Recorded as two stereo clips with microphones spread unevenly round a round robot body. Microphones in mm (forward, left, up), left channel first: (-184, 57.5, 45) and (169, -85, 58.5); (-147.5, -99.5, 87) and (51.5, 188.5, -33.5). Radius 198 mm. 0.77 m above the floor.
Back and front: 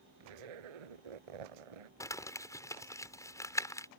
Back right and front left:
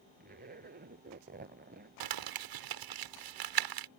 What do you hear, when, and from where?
0.2 s a zipper: 15° right
2.0 s crumpling: 75° left